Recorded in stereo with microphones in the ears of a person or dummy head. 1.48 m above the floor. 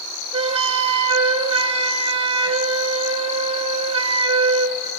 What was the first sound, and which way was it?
A flute, 25° right (ahead or behind).